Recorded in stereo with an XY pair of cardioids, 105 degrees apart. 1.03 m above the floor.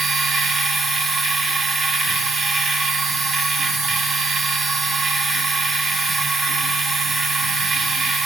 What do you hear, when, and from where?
0.0 s a machine running: 45° right, 1.5 m